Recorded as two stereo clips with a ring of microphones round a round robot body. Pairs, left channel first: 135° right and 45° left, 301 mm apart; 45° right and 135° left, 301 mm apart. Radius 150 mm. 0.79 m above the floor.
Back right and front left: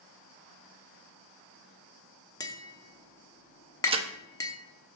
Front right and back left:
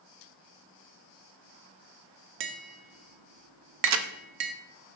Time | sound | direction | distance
2.4 | tapping | 145° left | 0.9 m
3.8 | a crack | 115° left | 0.7 m